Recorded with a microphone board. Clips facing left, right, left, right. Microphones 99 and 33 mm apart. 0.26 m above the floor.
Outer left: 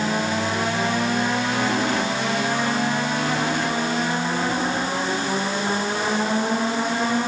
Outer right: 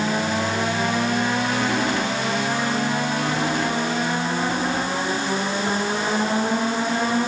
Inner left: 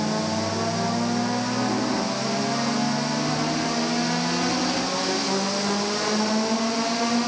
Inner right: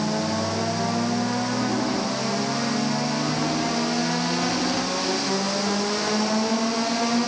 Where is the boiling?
I don't hear boiling.